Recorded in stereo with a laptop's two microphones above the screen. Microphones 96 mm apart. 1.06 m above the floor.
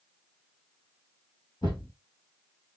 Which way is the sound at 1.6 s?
45° left (ahead or behind).